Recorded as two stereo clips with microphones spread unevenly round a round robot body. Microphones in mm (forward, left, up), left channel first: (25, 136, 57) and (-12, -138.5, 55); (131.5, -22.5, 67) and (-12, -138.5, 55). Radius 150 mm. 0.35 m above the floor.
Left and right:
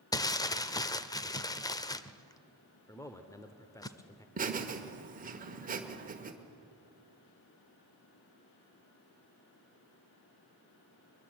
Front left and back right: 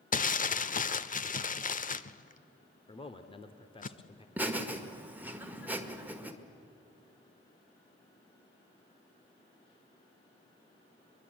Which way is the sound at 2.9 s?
15° left.